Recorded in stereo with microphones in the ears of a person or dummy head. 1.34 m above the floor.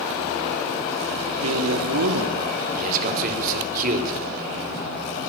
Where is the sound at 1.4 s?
85° right, 2.5 m; by 2.4 s 70° right (ahead or behind), 2.5 m.